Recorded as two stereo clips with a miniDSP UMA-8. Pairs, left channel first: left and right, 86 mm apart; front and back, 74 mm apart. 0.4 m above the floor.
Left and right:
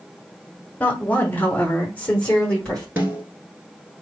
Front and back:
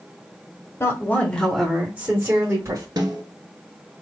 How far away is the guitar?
No guitar in this recording.